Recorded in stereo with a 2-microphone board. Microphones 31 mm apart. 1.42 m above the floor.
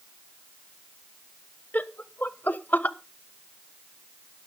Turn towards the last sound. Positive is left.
turn(degrees=75)  # may be behind; listen again after turning